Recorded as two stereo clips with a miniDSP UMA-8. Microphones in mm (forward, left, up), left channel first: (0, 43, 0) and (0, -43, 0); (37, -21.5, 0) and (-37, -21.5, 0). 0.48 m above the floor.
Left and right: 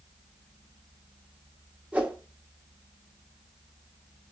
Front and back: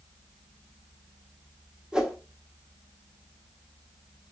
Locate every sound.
1.9 s a whoosh: 125° right, 0.8 m